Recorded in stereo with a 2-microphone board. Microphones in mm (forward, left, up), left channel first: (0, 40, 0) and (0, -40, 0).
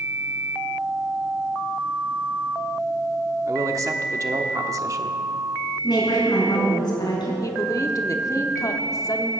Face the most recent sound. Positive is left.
turn(degrees=45)  # may be behind; listen again after turning